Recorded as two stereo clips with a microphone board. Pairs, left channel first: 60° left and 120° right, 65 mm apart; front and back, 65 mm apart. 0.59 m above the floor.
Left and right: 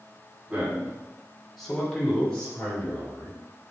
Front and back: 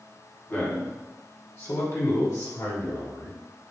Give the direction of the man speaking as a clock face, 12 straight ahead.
2 o'clock.